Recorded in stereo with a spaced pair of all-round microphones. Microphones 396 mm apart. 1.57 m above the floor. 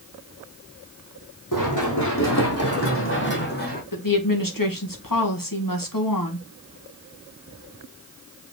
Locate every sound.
1.5 s running footsteps: 50° left (ahead or behind), 3 m; by 3.8 s 20° left (ahead or behind), 3.5 m
3.9 s a woman speaking: 55° left (ahead or behind), 2 m